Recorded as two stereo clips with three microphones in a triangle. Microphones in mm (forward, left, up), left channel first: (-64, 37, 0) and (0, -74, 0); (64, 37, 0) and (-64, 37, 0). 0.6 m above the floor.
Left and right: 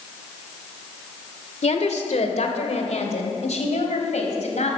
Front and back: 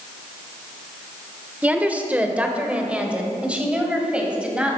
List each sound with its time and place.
1.6 s a woman speaking: 105° left, 1.8 m; by 4.8 s 100° left, 3.5 m